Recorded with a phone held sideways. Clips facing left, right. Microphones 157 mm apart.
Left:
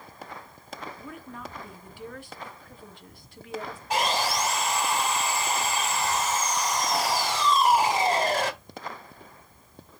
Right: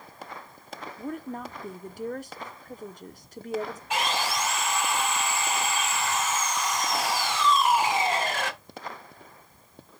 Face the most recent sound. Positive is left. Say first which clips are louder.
# left 3 dB
turn(degrees=35)  # may be behind; listen again after turning